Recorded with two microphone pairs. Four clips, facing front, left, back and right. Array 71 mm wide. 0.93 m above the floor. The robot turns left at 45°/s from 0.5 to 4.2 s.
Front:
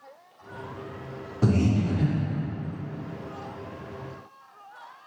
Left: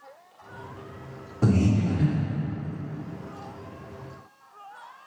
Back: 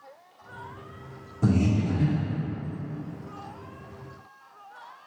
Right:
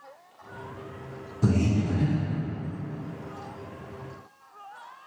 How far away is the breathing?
About 1.9 m.